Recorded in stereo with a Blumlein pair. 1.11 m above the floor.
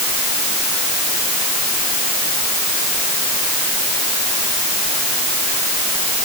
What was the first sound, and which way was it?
Only background noise.